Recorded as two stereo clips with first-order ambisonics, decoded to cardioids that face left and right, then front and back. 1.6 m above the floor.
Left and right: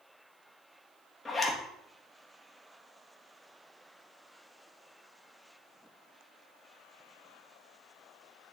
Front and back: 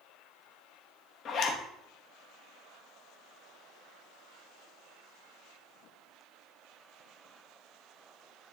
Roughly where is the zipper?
Ahead.